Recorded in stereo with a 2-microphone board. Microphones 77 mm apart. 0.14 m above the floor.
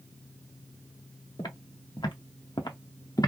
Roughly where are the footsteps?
Left.